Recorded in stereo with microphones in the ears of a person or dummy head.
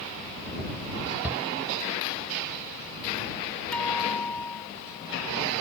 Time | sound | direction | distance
1.2 | a shout | 10° right (ahead or behind) | ?
3.7 | a guitar | 10° left (ahead or behind) | ?